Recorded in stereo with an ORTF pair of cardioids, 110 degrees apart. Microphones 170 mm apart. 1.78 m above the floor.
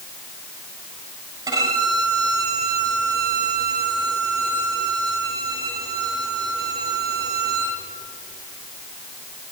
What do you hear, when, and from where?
1.5 s a violin: 20° right, 7 m